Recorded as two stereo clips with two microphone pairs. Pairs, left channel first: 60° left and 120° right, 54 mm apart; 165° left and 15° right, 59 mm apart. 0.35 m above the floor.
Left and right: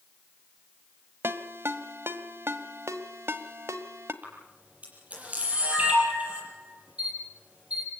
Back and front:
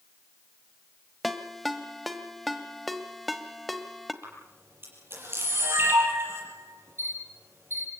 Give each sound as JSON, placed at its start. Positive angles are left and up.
{"t": 1.2, "sound": "a ringtone", "azimuth_deg": -105, "distance_m": 1.3}
{"t": 4.2, "sound": "a camera shutter", "azimuth_deg": -60, "distance_m": 7.0}